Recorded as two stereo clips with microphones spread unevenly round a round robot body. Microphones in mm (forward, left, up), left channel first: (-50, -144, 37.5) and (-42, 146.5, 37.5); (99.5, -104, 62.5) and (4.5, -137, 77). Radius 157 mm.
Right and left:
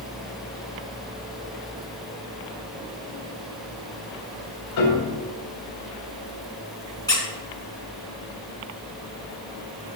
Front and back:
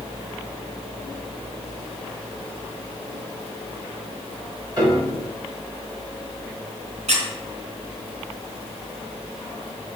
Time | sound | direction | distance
4.8 | a piano | 110° right | 2.5 m
7.1 | a squeak | 170° right | 1.9 m